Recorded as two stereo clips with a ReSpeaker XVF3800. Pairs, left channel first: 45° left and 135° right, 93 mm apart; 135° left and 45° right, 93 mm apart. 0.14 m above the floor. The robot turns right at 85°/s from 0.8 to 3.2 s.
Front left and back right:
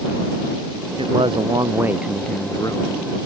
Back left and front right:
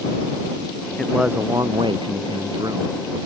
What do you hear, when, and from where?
1.0 s a man speaking: 145° right; by 3.0 s 25° left